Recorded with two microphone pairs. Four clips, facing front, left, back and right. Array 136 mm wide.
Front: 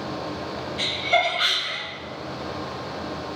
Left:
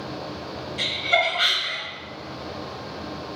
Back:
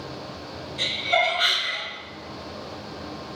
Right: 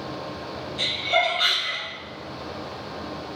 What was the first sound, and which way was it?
Laughter, 95° left.